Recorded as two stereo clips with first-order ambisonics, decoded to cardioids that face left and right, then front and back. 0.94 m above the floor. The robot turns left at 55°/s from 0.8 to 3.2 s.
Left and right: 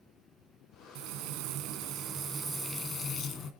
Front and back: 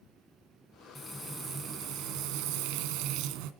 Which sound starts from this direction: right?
Frying, at 0.9 s.